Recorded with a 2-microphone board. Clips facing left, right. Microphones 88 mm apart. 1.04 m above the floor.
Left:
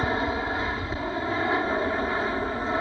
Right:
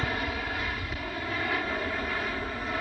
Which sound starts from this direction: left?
An aircraft, at 0.0 s.